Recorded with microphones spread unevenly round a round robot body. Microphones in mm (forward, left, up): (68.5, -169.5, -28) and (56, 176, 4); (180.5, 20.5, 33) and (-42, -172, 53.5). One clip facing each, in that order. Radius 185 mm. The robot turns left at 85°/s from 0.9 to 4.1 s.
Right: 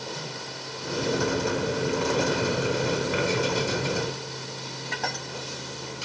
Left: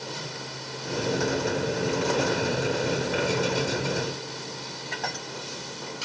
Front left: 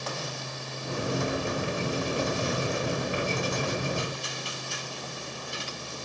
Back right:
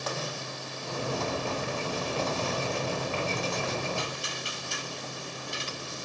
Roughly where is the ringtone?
No ringtone in this recording.